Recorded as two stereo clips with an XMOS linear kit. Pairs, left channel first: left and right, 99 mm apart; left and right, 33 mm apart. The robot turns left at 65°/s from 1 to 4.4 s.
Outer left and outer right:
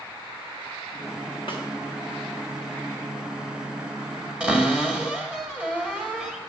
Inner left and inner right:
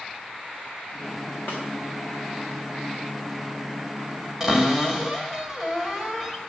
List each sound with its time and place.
1.5 s a snare drum: 60° left (ahead or behind), 2.5 m
4.4 s a cupboard door: 10° right (ahead or behind), 1.3 m